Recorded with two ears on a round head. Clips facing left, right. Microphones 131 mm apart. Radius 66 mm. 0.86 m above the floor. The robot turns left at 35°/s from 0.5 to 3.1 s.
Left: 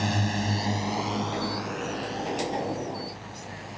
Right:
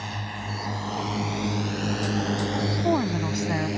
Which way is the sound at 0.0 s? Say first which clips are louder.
Left 7 dB; 60° left (ahead or behind).